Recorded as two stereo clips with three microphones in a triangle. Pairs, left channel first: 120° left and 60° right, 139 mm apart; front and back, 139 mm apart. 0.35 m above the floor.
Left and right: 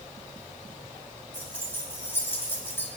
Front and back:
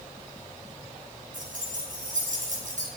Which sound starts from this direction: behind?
Keys jangling, at 1.3 s.